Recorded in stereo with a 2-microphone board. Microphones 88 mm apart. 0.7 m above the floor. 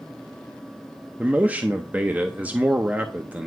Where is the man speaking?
20° right (ahead or behind), 0.6 m.